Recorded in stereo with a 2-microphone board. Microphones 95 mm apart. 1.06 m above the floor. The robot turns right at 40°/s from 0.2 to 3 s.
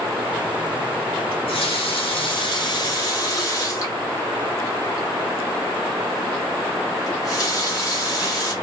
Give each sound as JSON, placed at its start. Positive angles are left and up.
{"t": 1.3, "sound": "a running tap", "azimuth_deg": 75, "distance_m": 1.2}